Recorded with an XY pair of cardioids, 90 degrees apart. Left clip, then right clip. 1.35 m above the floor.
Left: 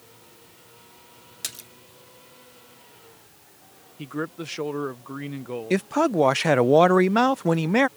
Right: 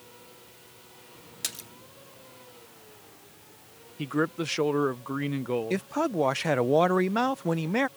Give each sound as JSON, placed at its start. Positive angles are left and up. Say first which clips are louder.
{"t": 1.4, "sound": "a splash", "louder": "even", "azimuth_deg": 0}
{"t": 4.0, "sound": "a man speaking", "louder": "right 3 dB", "azimuth_deg": -35}
{"t": 5.7, "sound": "a man speaking", "louder": "left 6 dB", "azimuth_deg": 40}